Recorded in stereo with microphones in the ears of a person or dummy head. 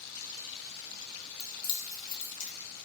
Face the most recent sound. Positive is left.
turn(degrees=75)  # may be behind; listen again after turning